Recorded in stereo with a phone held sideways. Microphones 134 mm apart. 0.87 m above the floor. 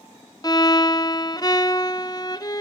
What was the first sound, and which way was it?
A violin, 30° left (ahead or behind).